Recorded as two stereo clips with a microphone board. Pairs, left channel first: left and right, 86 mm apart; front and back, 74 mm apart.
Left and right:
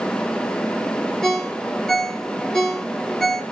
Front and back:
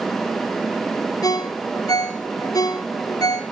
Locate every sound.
1.2 s a ringtone: 10° left, 1.7 m